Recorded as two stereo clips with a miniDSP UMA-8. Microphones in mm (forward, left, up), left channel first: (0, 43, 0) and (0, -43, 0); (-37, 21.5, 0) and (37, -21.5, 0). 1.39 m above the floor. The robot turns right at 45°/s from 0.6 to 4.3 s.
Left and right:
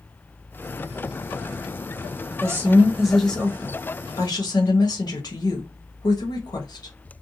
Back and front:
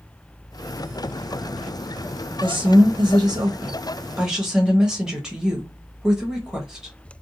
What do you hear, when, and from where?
2.4 s a woman speaking: 30° right, 1.0 m; by 6.9 s 55° left, 1.0 m